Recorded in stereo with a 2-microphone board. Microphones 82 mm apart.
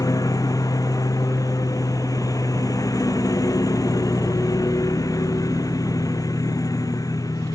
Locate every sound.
0.0 s a lawn mower: 50° left (ahead or behind)